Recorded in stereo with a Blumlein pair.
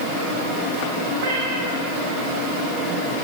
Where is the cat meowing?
50° right, 3 m.